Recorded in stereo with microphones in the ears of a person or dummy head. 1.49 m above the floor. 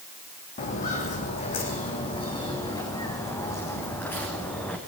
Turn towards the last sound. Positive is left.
turn(degrees=10)  # may be behind; listen again after turning